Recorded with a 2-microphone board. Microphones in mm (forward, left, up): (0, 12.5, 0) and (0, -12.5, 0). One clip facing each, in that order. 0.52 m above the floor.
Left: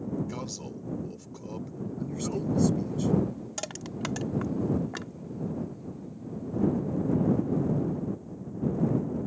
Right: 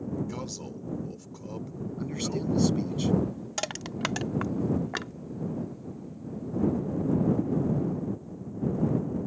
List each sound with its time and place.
0.3 s a man speaking: centre (ahead or behind)
2.0 s a man speaking: 35° right (ahead or behind)
3.6 s crushing: 30° right (ahead or behind)